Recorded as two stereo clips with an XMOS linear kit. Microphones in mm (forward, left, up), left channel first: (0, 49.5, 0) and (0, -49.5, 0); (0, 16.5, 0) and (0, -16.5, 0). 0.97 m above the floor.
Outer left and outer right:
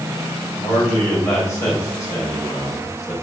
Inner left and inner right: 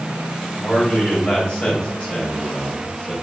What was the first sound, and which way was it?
A man speaking, 30° left (ahead or behind).